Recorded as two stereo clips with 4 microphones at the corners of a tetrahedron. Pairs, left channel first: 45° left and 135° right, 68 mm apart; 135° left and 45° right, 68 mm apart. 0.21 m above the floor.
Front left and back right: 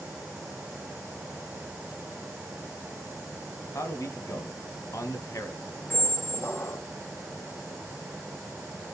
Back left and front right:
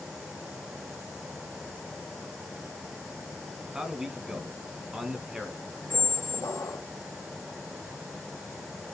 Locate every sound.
3.7 s a man speaking: 35° left, 1.7 m
5.9 s a squeak: 100° left, 0.7 m